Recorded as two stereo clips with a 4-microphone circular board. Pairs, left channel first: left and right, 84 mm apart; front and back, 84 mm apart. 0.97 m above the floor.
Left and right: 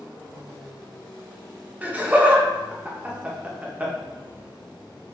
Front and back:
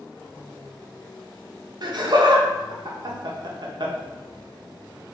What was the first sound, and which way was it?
Laughter, 160° right.